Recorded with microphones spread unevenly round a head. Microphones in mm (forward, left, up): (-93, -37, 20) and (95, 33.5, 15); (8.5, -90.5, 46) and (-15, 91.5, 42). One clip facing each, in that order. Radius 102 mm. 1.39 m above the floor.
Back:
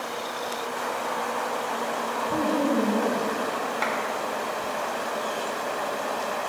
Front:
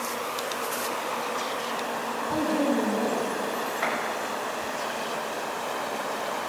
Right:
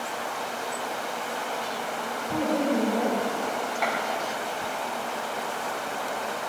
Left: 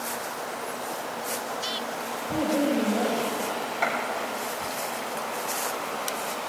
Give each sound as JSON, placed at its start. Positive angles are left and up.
{"t": 2.3, "sound": "a woman speaking", "azimuth_deg": -170, "distance_m": 6.0}
{"t": 3.8, "sound": "a clap", "azimuth_deg": -170, "distance_m": 4.0}